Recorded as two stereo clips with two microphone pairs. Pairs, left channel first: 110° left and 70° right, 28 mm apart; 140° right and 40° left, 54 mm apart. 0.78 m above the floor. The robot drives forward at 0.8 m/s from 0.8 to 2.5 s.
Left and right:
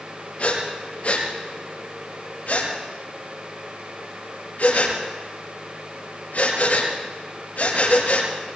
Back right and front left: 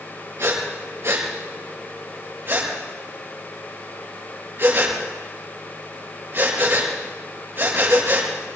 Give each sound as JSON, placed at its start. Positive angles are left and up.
{"t": 0.4, "sound": "breathing", "azimuth_deg": 70, "distance_m": 4.5}